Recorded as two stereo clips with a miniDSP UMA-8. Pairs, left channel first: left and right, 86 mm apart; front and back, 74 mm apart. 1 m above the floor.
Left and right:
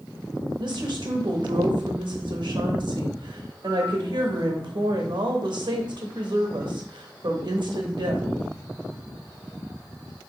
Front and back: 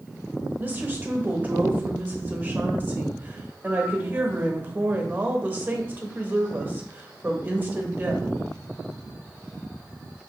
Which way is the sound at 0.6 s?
115° right.